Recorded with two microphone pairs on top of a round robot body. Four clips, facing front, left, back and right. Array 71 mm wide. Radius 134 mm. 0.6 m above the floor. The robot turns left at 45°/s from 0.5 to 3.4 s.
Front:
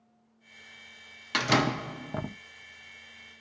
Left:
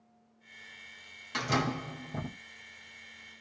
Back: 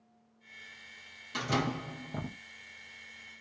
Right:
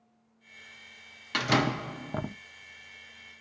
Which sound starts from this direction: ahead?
A door slam, at 1.3 s.